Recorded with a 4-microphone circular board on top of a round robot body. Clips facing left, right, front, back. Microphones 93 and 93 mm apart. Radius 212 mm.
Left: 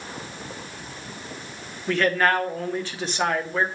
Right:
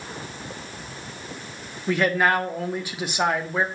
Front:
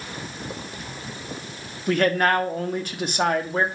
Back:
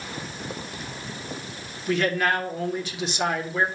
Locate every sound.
1.9 s a man speaking: 15° right, 1.7 m